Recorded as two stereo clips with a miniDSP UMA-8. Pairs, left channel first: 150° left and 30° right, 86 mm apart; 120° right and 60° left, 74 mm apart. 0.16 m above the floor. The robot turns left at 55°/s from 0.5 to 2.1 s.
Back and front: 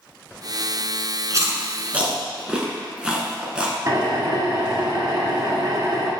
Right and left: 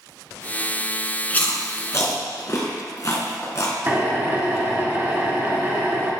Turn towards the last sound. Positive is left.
turn(degrees=10)